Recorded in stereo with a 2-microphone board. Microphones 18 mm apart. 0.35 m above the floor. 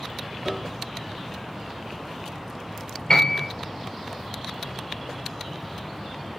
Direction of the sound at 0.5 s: 20° right (ahead or behind).